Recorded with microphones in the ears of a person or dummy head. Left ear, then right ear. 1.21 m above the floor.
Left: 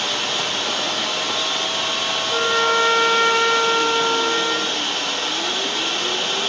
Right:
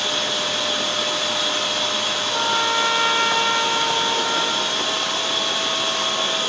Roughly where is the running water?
Left.